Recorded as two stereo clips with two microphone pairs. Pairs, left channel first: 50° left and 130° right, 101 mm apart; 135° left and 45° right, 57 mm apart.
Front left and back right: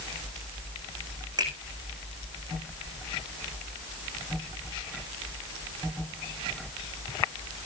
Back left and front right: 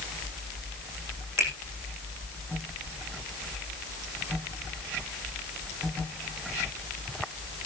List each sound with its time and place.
1.4 s a finger snap: 80° right, 8.5 m